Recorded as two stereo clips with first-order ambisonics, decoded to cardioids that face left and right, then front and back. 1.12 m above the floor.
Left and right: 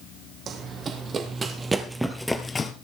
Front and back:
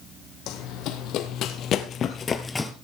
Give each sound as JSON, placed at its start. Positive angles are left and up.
{"t": 0.5, "sound": "running footsteps", "azimuth_deg": -30, "distance_m": 2.5}